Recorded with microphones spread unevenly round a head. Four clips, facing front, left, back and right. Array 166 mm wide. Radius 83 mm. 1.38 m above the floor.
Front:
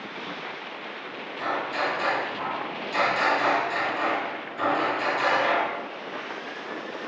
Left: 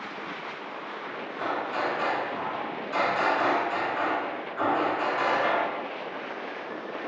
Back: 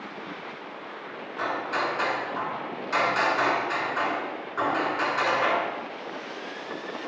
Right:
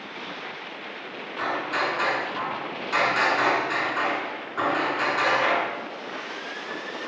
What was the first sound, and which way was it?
Hammering, 125° right.